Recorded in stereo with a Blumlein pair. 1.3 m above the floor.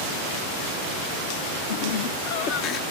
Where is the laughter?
60° left, 1.6 m; by 2.8 s 30° left, 0.9 m.